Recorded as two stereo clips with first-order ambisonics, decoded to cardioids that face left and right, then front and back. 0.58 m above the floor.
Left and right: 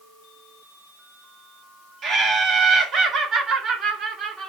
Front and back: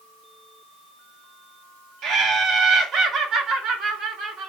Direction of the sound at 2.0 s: 135° right.